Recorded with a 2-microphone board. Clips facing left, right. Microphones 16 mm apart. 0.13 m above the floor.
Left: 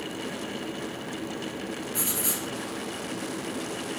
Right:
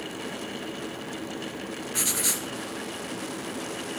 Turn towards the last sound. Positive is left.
turn(degrees=-35)  # may be behind; listen again after turning